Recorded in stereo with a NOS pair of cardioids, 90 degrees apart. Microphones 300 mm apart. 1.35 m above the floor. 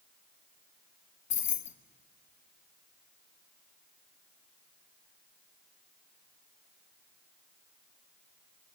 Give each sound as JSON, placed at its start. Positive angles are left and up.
{"t": 1.3, "sound": "keys jangling", "azimuth_deg": 65, "distance_m": 1.2}